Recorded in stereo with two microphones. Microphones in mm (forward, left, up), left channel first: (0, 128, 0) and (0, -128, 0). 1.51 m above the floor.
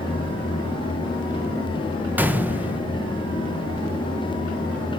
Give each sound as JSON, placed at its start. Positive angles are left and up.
{"t": 2.2, "sound": "a gunshot", "side_deg": -5, "distance_m": 0.6}